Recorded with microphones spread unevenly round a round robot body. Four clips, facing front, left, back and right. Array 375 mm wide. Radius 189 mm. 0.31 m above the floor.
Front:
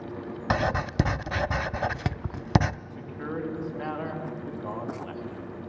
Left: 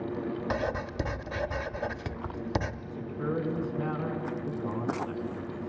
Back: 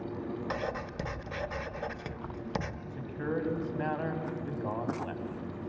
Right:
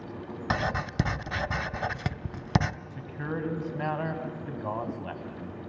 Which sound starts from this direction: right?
A man speaking, at 2.9 s.